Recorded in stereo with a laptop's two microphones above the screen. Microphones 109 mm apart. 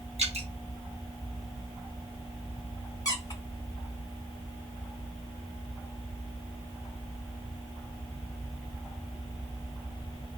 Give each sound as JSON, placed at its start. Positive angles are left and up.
{"t": 0.2, "sound": "dripping", "side_deg": -65, "distance_m": 1.2}
{"t": 3.0, "sound": "a squeak", "side_deg": 30, "distance_m": 1.6}